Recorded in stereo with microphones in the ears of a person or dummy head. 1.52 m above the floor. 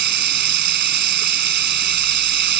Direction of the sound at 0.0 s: 50° right (ahead or behind).